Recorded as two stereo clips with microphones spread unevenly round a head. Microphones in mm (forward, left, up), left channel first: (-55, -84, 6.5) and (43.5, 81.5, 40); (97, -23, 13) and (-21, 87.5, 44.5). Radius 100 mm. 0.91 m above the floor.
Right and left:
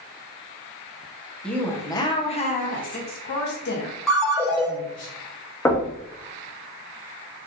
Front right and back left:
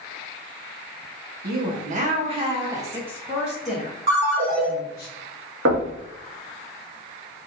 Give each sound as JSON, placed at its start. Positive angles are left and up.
{"t": 1.4, "sound": "a woman speaking", "azimuth_deg": 165, "distance_m": 1.0}
{"t": 4.1, "sound": "a ringtone", "azimuth_deg": 150, "distance_m": 1.5}
{"t": 5.7, "sound": "knocking", "azimuth_deg": 160, "distance_m": 1.0}